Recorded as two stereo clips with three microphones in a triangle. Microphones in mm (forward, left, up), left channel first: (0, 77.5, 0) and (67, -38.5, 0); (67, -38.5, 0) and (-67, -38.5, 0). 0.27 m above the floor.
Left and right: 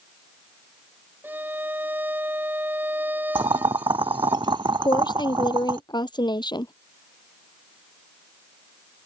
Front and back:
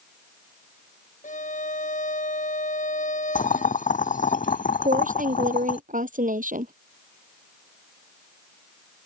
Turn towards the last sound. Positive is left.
turn(degrees=175)